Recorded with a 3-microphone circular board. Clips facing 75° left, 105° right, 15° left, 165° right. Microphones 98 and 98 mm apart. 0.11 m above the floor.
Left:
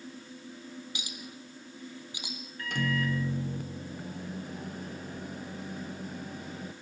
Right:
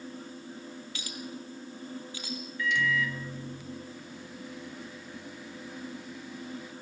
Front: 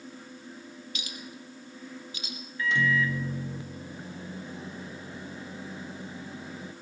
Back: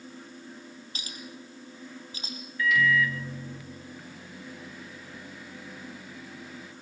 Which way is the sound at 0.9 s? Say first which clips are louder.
Right 4 dB, back 2 dB; 145° left.